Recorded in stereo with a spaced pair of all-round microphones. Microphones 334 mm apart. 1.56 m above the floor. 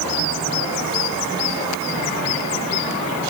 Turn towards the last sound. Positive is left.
No sound to turn to.